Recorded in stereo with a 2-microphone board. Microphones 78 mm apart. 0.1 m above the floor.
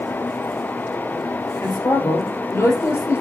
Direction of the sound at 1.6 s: 35° left (ahead or behind).